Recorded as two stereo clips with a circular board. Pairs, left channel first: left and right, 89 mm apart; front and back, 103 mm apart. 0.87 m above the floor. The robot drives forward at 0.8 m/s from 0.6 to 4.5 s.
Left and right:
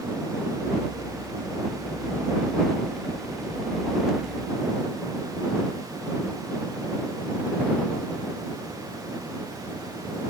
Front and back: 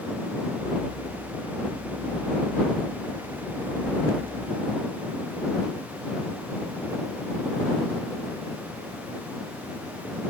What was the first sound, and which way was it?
Only background noise.